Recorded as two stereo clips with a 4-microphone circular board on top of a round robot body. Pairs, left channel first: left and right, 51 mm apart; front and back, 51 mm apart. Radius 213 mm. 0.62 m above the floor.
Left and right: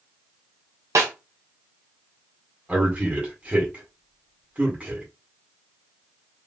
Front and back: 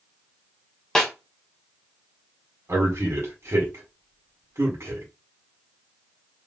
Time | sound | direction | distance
0.9 | a snare drum | 80° right | 1.1 m
2.7 | a man speaking | 155° right | 1.7 m